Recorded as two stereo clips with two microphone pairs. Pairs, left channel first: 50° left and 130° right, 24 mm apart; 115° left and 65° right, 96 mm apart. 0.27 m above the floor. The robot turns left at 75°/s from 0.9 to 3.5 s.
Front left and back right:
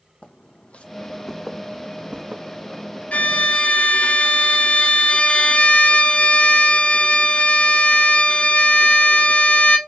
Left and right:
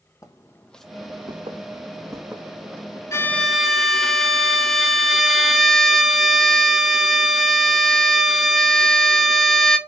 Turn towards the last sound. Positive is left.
turn(degrees=25)